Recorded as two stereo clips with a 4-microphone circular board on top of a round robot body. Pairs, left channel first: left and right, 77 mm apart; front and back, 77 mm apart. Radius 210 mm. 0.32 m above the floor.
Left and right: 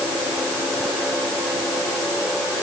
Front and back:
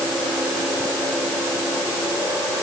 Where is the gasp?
I don't hear a gasp.